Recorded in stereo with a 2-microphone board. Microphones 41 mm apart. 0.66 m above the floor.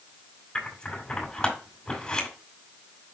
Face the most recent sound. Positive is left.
turn(degrees=20)  # may be behind; listen again after turning